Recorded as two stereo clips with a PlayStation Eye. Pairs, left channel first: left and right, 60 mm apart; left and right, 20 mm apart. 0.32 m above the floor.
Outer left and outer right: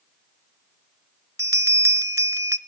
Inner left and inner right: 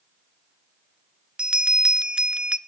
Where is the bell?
55° right (ahead or behind), 0.6 m.